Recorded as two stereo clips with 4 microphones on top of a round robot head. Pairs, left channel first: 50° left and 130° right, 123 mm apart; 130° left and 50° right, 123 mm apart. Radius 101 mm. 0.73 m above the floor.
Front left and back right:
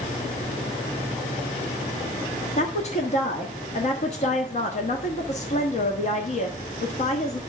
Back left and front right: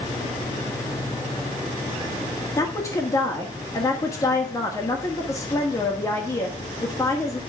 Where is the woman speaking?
65° left, 1.5 m.